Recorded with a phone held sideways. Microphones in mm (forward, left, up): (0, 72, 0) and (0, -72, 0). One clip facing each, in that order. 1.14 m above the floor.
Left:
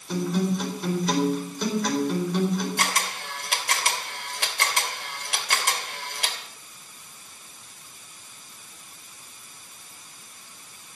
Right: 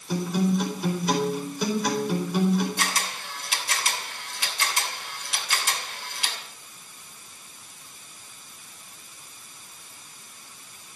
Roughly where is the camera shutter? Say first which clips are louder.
Left 2 dB; left.